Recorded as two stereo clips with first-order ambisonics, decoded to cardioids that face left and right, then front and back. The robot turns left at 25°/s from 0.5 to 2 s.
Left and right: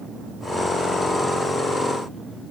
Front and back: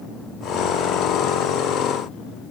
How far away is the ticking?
I don't hear ticking.